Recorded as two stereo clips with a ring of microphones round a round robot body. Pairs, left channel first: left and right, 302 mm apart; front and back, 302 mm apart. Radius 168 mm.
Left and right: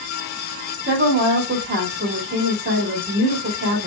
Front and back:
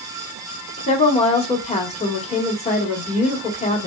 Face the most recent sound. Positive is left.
turn(degrees=-60)